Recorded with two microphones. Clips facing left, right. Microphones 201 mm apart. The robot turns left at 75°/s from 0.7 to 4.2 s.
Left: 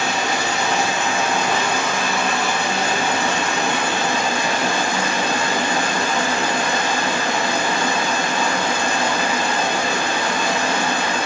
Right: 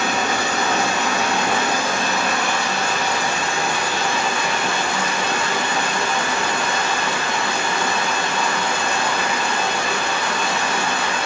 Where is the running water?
55° right, 1.5 m; by 11.3 s 40° left, 1.5 m.